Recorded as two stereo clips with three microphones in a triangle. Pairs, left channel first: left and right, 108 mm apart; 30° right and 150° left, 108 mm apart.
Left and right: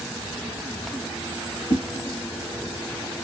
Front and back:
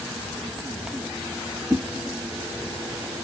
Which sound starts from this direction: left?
A whoosh, at 1.7 s.